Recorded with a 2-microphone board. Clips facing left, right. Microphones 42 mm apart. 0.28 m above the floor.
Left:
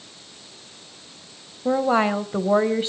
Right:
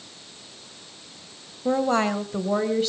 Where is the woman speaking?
10° left (ahead or behind), 1.4 m; by 2.9 s 30° left (ahead or behind), 1.4 m.